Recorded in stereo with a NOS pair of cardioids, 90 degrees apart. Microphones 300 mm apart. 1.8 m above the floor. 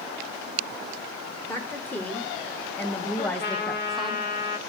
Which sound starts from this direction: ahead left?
A trumpet, at 3.2 s.